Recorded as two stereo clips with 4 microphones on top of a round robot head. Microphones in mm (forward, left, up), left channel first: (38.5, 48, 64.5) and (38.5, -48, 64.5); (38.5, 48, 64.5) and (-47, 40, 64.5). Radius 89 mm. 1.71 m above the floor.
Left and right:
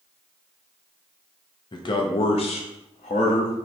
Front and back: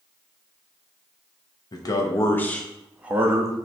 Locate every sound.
1.7 s a man speaking: 50° left, 0.9 m; by 3.5 s 130° left, 0.8 m